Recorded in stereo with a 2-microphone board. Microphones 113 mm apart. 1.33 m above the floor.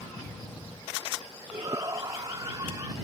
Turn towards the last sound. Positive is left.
turn(degrees=-35)  # may be behind; listen again after turning